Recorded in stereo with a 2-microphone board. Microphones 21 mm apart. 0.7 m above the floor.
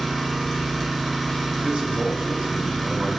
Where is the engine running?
10° right (ahead or behind), 1.0 m.